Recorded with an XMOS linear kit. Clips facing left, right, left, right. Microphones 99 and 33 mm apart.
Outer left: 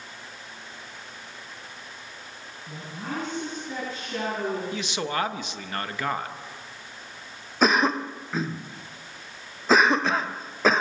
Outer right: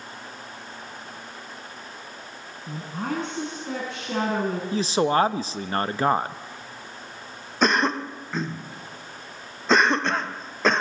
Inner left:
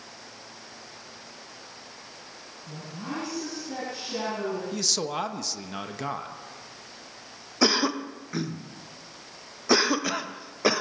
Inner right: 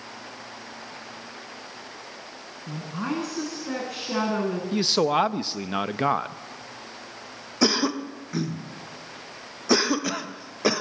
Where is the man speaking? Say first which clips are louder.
Outer right 8 dB, inner right 8 dB; 35° right (ahead or behind), 1.0 m.